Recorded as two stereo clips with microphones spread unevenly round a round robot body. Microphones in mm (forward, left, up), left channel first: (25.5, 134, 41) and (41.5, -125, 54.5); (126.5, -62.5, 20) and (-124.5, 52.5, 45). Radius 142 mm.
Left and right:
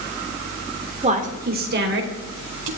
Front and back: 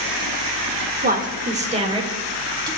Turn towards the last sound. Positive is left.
turn(degrees=-130)